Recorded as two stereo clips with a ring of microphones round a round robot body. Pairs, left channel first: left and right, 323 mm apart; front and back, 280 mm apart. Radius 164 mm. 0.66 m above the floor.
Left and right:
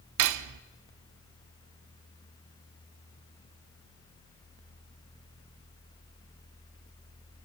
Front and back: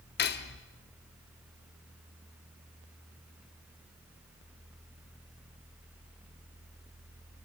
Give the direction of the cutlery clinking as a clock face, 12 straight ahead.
2 o'clock.